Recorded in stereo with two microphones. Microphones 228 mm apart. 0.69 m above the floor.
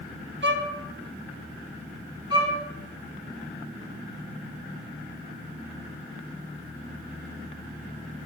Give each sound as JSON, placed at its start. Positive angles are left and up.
{"t": 0.4, "sound": "a violin", "side_deg": -55, "distance_m": 0.8}
{"t": 2.3, "sound": "a violin", "side_deg": -15, "distance_m": 3.5}